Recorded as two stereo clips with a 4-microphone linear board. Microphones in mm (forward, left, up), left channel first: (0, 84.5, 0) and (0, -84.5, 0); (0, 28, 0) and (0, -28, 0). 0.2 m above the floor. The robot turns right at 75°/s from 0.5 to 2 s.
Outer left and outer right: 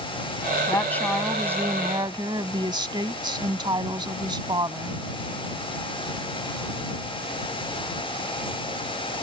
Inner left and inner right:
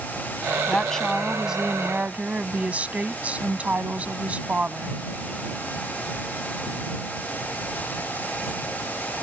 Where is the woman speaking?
140° left; by 5.0 s 120° right.